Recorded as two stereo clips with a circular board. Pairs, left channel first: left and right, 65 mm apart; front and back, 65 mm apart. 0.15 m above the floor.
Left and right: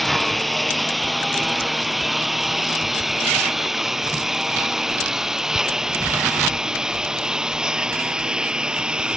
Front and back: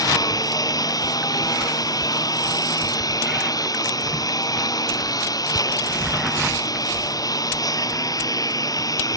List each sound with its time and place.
0.0 s a lawn mower: straight ahead; by 9.2 s 15° right